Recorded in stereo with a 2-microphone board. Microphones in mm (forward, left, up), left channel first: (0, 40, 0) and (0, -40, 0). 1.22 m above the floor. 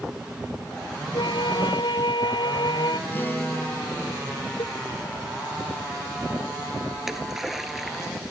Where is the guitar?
25° left (ahead or behind).